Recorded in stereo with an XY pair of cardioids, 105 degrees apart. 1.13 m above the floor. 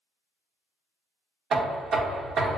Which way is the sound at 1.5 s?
50° right.